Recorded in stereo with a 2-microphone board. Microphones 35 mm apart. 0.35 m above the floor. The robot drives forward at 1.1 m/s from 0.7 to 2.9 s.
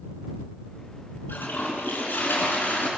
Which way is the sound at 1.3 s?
75° left (ahead or behind).